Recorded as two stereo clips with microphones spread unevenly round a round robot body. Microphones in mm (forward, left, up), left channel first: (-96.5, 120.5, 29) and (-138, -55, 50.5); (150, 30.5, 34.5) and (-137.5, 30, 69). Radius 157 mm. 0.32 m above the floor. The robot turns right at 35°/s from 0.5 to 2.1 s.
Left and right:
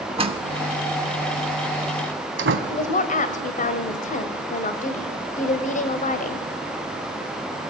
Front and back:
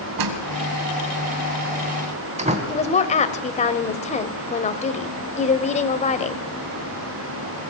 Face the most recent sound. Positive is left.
turn(degrees=55)